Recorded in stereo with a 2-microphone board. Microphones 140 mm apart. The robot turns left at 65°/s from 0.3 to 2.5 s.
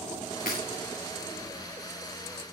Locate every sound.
0.5 s breaking glass: 75° left (ahead or behind), 7 m; by 0.6 s 65° left (ahead or behind), 7 m